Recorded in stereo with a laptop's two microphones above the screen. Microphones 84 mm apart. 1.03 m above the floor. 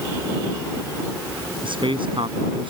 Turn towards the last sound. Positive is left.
turn(degrees=-80)